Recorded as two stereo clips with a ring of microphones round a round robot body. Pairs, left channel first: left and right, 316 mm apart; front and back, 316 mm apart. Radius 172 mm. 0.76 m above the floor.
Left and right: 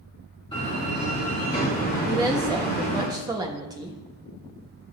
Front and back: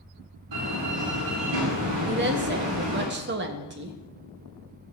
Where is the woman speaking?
160° right, 0.9 m.